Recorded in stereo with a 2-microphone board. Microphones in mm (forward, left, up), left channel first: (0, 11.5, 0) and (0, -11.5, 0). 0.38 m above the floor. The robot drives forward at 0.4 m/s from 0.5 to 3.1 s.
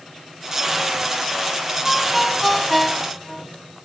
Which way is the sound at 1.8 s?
Centre (ahead or behind).